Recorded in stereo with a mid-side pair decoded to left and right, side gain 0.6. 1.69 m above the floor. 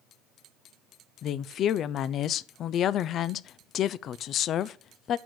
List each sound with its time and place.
1.2 s a woman speaking: 55° left, 0.5 m